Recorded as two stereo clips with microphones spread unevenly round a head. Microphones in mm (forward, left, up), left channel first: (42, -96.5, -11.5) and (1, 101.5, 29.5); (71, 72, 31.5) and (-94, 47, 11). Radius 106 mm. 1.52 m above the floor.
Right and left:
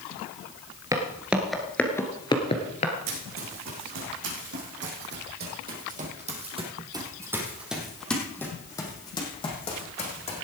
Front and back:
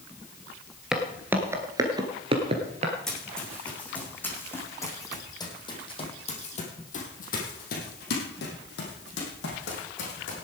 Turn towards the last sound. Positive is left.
turn(degrees=-20)